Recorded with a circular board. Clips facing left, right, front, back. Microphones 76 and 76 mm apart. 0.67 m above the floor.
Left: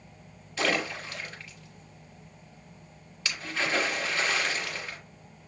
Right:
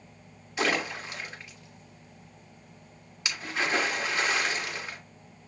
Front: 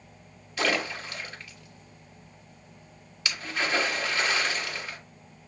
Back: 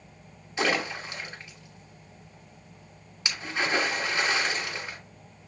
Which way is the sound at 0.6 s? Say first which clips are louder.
Even, back 1 dB; 145° right.